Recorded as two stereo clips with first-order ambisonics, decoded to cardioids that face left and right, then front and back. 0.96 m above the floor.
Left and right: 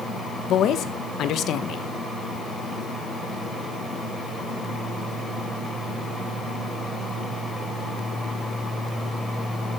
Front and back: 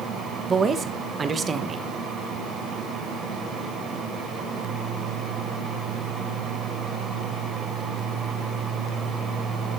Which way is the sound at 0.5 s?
120° left.